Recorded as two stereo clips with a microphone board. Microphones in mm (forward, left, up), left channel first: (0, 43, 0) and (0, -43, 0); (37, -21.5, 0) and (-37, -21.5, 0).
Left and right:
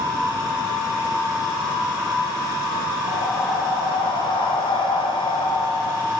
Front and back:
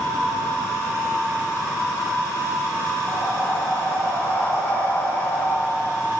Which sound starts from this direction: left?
Breathing, at 3.1 s.